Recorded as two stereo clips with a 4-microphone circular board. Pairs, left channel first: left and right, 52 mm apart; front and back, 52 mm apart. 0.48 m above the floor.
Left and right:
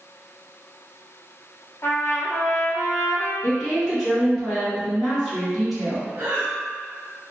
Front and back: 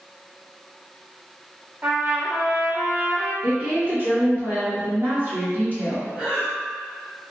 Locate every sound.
1.8 s a trumpet: 120° left, 0.6 m
3.4 s a woman speaking: 175° left, 1.4 m
6.2 s breathing: 110° right, 0.9 m